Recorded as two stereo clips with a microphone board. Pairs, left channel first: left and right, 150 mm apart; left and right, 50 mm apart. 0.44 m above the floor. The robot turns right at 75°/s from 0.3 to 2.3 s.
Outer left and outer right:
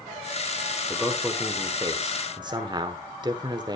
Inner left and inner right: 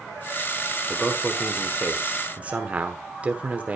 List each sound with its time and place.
0.9 s a man speaking: 5° left (ahead or behind), 1.0 m; by 3.8 s 30° right (ahead or behind), 1.0 m